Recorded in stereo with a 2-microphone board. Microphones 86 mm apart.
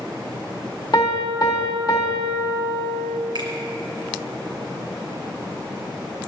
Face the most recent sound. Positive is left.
turn(degrees=-65)  # may be behind; listen again after turning